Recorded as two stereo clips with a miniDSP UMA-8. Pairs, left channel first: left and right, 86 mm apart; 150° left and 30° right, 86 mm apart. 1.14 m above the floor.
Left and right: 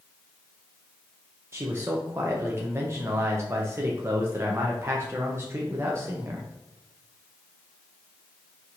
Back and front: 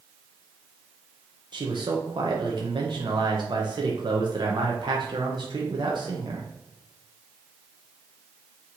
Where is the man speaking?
35° right, 0.6 m.